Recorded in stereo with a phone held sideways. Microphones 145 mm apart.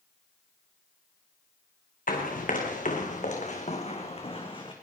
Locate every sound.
2.1 s running footsteps: 70° left (ahead or behind), 3 m; by 4.7 s 35° left (ahead or behind), 3 m